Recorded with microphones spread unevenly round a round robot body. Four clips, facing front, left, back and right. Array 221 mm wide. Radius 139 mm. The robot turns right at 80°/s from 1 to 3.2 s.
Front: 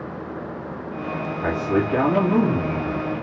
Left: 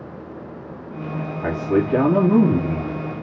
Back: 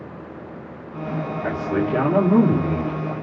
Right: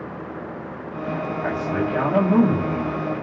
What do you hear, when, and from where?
1.4 s a man speaking: 30° left, 1.9 m; by 3.0 s 155° left, 1.9 m